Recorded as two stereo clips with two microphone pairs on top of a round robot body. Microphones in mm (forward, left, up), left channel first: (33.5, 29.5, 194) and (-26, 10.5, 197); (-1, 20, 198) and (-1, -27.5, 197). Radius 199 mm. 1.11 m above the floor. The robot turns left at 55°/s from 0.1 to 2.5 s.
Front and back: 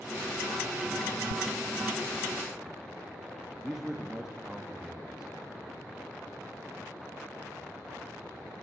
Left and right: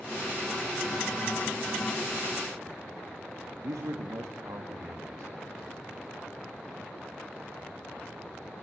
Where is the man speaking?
80° right, 2 m.